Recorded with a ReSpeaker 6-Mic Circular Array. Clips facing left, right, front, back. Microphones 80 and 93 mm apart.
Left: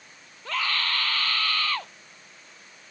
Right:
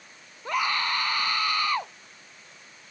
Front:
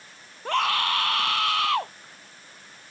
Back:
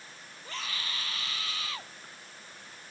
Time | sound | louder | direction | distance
0.5 | a scream | right 3 dB, front 17 dB | 20° right | ?